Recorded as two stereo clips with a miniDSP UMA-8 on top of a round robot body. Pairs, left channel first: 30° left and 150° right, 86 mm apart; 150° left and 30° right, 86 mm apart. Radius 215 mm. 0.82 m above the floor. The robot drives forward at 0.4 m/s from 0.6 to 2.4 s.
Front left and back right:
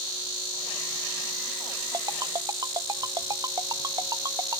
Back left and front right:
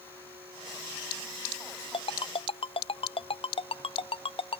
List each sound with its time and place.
1.9 s a ringtone: 160° left